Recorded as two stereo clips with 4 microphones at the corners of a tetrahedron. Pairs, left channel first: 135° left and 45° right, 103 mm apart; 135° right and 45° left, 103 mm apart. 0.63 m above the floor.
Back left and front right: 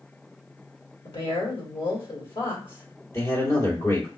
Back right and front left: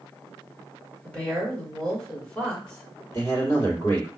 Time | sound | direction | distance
1.0 | a woman speaking | 150° left | 1.7 m
3.1 | a man speaking | straight behind | 1.8 m